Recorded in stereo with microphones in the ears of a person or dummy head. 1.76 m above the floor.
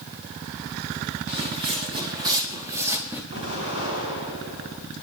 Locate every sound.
1.3 s footsteps: 35° right (ahead or behind), 4.5 m; by 3.2 s 10° right (ahead or behind), 4.5 m
3.3 s an explosion: 30° right (ahead or behind), 8 m